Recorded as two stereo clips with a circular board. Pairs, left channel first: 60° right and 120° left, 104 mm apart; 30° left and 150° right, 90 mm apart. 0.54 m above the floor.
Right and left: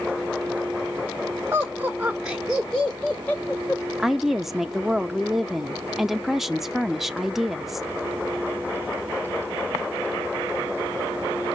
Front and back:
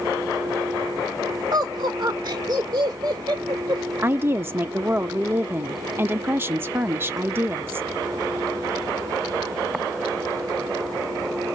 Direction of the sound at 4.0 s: 155° right.